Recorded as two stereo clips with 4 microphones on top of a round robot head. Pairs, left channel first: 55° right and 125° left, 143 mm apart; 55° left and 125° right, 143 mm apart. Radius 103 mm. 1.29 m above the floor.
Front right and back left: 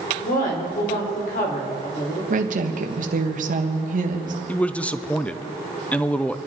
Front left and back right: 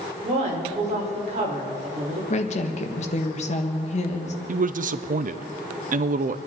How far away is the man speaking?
About 0.7 m.